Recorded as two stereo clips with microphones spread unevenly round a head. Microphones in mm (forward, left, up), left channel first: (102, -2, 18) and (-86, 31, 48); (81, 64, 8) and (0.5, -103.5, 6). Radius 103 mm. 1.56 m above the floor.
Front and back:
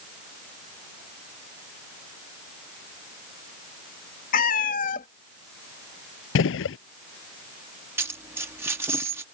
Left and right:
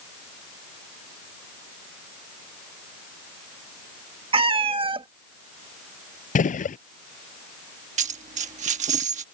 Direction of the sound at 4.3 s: 60° right.